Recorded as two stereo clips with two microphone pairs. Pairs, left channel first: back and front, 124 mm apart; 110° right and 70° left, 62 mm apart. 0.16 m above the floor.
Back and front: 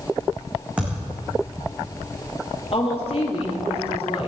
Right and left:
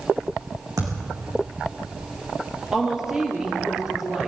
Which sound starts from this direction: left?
A thud, at 0.8 s.